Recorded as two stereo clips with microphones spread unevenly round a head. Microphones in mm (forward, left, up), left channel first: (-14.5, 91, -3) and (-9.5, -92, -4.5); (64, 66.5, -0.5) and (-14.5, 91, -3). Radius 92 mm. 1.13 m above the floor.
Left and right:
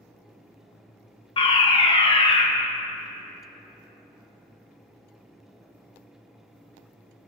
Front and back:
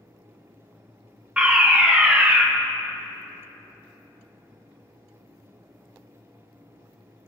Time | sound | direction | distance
1.4 | a fire alarm | 105° left | 1.0 m